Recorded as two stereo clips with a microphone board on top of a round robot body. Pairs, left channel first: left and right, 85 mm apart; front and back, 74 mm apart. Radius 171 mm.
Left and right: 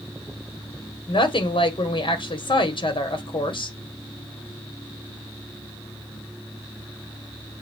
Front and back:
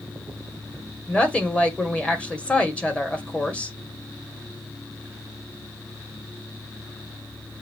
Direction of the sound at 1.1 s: 75° left.